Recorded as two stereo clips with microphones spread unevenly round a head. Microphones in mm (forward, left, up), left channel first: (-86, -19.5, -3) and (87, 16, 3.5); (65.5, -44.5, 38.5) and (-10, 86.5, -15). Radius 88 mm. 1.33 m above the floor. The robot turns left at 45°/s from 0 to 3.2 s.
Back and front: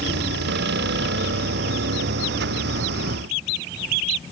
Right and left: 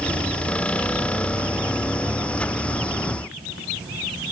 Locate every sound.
Only background noise.